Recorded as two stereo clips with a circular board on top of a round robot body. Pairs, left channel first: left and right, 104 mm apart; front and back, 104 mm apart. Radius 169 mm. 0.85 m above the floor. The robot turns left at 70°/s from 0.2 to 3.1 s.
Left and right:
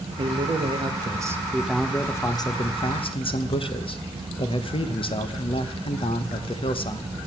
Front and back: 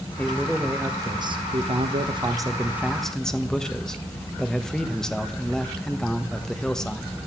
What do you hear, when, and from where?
0.2 s a man speaking: 75° right, 1.5 m; by 7.1 s 85° left, 1.5 m